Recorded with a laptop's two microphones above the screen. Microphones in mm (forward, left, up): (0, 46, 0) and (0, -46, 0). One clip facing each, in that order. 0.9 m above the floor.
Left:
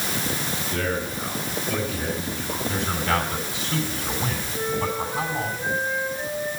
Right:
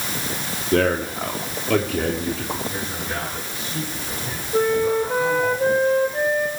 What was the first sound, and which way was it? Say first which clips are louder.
A man speaking: right 9 dB; 65° right (ahead or behind).